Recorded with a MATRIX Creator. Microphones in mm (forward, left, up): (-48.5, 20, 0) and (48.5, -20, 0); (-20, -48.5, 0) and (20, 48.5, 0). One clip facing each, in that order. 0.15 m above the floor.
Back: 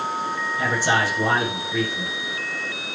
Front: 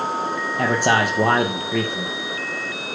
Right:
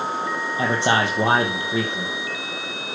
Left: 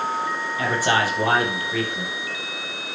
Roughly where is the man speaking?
Ahead right.